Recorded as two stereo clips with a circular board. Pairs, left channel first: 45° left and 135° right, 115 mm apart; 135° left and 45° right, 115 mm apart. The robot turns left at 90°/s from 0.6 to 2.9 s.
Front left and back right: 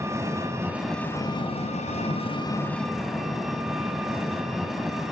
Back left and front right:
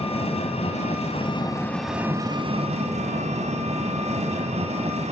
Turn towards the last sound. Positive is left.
turn(degrees=-45)